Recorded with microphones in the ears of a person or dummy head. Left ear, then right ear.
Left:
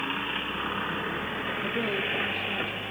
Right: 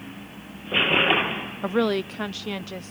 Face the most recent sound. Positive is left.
turn(degrees=-75)  # may be behind; listen again after turning